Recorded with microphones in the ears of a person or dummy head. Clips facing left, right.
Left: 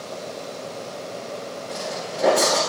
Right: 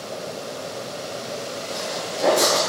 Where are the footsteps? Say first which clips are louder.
Even; 10° left (ahead or behind), 7.5 m.